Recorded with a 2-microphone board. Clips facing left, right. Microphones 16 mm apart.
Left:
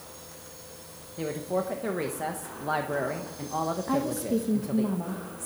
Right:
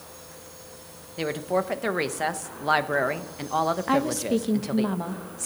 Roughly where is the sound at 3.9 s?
Right.